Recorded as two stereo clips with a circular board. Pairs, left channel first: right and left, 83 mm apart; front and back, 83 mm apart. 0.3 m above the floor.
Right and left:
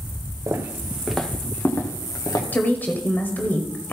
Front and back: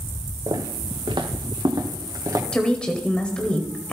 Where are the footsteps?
145° left, 1.8 m; by 2.4 s 130° right, 2.5 m.